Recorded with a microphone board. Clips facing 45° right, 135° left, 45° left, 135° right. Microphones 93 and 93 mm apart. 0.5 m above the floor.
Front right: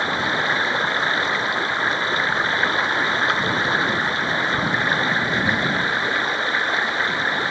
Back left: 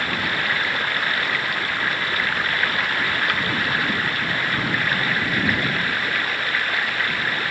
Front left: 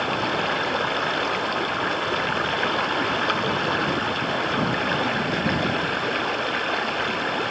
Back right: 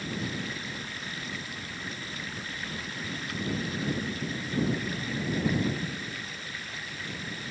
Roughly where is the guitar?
No guitar in this recording.